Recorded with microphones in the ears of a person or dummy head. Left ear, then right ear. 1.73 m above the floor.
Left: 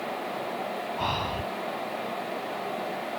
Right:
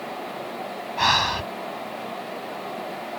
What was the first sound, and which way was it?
Breathing, 50° right (ahead or behind).